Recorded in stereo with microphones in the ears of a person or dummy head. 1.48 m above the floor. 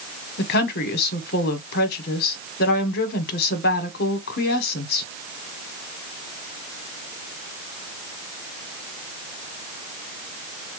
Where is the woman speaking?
55° left (ahead or behind), 1.2 m.